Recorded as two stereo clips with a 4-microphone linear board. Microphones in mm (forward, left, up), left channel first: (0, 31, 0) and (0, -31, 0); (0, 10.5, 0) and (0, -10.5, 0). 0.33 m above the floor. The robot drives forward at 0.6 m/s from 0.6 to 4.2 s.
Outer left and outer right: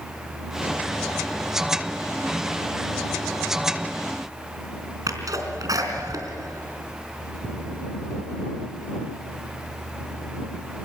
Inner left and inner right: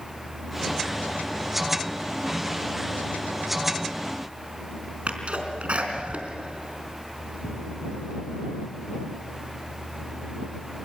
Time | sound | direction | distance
5.1 | a sneeze | 70° right (ahead or behind) | 4 m